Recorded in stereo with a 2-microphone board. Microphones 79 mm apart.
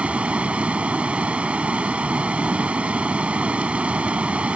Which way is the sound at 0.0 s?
15° right (ahead or behind).